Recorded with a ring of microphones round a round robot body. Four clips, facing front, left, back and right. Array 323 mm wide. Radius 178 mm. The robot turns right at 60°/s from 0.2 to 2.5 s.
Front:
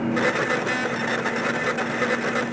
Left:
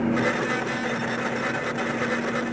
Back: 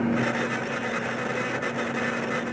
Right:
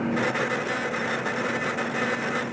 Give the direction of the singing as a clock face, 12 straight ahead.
No singing in this recording.